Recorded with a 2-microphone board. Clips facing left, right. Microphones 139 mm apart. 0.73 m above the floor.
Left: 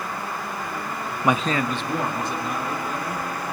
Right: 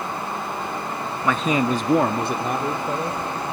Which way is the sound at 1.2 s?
25° left (ahead or behind).